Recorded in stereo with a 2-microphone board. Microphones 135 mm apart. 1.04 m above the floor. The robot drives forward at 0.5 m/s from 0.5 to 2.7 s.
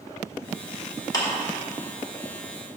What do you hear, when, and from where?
1.1 s a clap: 30° left (ahead or behind), 2.5 m